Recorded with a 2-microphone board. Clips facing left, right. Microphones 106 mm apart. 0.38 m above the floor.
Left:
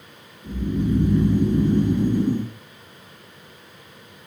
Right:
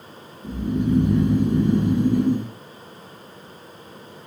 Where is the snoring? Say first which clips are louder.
Right 1 dB; 80° right, 1.2 m.